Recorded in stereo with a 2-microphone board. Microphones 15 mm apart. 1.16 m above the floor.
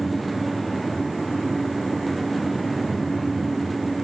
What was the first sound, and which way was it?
Only background noise.